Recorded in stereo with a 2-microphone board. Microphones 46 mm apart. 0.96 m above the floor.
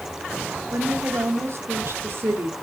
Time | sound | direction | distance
0.7 | a woman speaking | 65° right (ahead or behind) | 1.9 m